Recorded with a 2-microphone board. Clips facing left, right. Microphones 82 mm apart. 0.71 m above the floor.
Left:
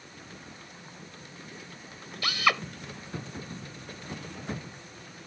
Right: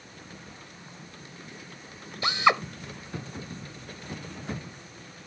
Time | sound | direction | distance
2.2 | a drill | 25° right (ahead or behind) | ?